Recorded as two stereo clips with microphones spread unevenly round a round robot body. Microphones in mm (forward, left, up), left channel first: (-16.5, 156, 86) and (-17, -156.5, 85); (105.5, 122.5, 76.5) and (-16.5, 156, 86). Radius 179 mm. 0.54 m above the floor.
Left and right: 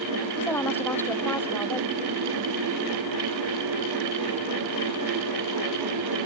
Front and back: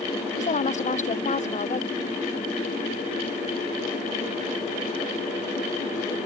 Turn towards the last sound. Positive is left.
turn(degrees=5)